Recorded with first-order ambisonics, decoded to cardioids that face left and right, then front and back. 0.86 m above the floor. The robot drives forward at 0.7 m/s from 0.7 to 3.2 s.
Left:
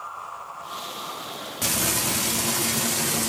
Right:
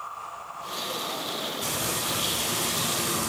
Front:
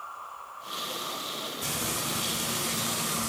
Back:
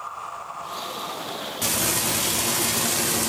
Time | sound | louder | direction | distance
1.6 | frying | left 8 dB, back 9 dB | 135° left | 1.4 m